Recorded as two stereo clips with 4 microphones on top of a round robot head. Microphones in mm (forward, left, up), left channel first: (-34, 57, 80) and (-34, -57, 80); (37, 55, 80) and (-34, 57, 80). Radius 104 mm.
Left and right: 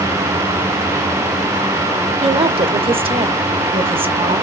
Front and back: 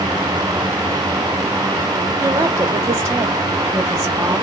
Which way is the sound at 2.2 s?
125° right.